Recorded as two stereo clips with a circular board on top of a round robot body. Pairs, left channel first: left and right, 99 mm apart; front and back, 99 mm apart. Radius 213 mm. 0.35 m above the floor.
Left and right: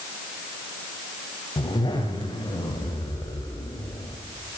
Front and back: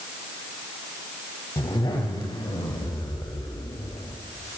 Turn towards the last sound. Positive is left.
turn(degrees=45)